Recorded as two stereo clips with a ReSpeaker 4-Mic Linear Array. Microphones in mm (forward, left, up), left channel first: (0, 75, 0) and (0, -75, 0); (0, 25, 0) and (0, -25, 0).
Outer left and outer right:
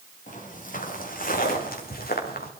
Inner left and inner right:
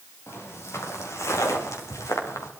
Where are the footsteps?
65° left (ahead or behind), 6 m; by 2.5 s 85° left, 4 m.